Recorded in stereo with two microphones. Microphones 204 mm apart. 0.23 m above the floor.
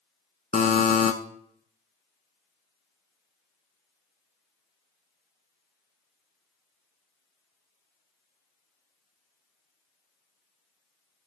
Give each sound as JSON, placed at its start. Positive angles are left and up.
{"t": 0.5, "sound": "a buzzer", "side_deg": 45, "distance_m": 0.7}